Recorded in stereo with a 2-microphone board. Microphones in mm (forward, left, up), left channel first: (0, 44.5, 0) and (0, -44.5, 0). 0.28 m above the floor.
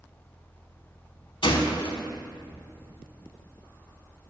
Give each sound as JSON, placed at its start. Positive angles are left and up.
{"t": 1.4, "sound": "a gunshot", "side_deg": 70, "distance_m": 0.7}